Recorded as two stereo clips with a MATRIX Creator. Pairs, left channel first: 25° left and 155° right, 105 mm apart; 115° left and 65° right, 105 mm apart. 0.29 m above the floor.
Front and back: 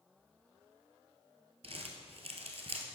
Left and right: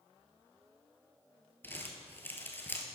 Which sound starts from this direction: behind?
Crumpling, at 1.6 s.